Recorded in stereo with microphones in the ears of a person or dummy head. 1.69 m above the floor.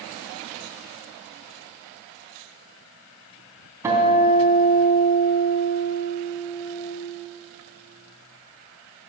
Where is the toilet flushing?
No toilet flushing in this recording.